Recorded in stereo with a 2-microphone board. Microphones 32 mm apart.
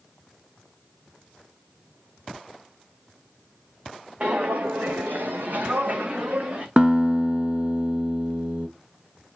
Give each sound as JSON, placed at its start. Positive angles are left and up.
{"t": 4.2, "sound": "footsteps", "side_deg": -40, "distance_m": 1.3}
{"t": 6.8, "sound": "a guitar", "side_deg": -35, "distance_m": 0.9}